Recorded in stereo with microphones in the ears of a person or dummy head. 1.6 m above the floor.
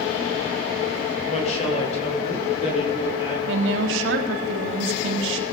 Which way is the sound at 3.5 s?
80° right.